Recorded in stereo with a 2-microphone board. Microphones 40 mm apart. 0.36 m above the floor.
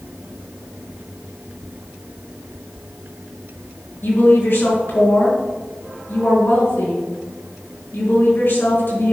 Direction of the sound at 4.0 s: 70° left (ahead or behind).